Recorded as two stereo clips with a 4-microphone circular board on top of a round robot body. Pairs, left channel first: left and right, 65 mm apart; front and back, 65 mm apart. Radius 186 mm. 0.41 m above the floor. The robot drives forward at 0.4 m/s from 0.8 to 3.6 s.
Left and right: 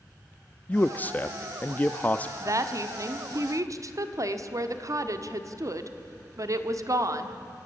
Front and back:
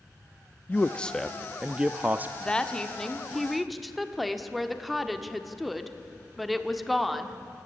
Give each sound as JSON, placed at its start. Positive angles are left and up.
{"t": 0.7, "sound": "a man speaking", "azimuth_deg": 45, "distance_m": 0.8}
{"t": 2.4, "sound": "a woman speaking", "azimuth_deg": -70, "distance_m": 1.8}